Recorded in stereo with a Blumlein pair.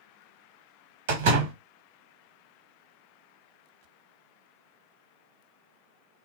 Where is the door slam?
50° right, 1.3 m.